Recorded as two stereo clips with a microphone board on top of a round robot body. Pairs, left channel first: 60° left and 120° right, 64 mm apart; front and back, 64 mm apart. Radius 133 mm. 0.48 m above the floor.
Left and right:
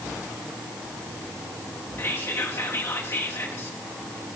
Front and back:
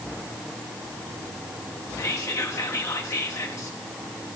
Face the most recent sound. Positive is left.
turn(degrees=35)